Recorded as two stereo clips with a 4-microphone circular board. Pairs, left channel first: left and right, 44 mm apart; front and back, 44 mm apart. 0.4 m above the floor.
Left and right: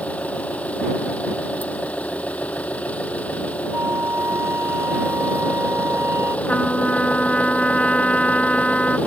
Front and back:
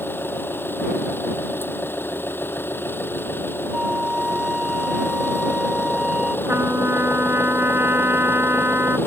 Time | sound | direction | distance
0.0 | an engine running | 35° left | ?
3.7 | a flute | 105° right | ?
6.5 | a trumpet | 150° left | ?